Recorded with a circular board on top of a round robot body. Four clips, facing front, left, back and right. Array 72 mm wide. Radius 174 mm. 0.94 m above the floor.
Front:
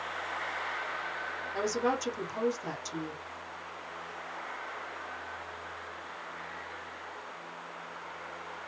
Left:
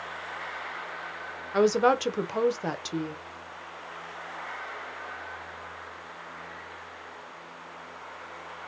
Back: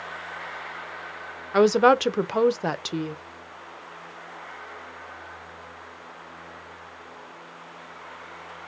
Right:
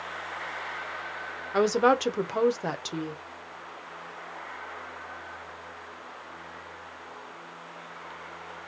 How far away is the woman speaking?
About 0.7 m.